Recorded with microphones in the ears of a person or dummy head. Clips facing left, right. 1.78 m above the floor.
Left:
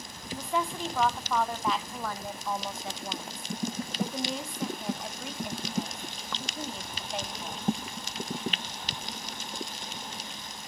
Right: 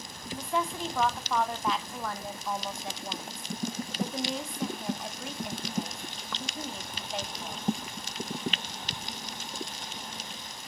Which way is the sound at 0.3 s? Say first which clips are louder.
Even; centre (ahead or behind).